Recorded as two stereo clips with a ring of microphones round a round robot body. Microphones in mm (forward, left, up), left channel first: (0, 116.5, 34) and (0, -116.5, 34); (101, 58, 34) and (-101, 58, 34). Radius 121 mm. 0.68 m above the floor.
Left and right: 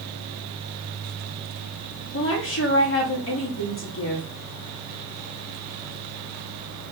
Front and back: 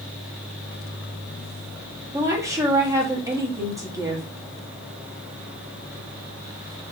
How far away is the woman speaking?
About 1.3 m.